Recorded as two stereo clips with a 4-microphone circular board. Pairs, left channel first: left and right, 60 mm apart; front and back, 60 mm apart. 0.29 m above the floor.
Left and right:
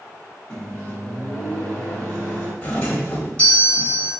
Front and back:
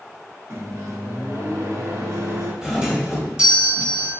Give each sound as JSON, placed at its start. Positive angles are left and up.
{"t": 0.5, "sound": "a microwave", "azimuth_deg": 160, "distance_m": 2.0}
{"t": 2.6, "sound": "a doorbell", "azimuth_deg": 125, "distance_m": 1.4}